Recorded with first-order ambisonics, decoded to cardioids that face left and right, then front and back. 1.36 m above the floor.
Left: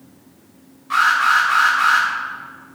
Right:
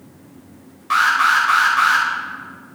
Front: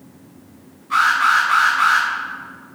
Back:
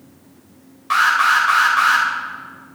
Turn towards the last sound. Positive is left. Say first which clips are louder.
# even, back 1 dB
turn(degrees=-150)